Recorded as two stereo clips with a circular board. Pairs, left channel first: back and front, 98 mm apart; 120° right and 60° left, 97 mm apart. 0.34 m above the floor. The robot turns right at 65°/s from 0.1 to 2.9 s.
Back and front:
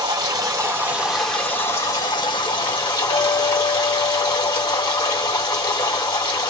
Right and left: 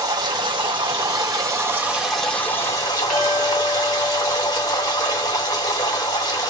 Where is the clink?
155° left, 1.7 m.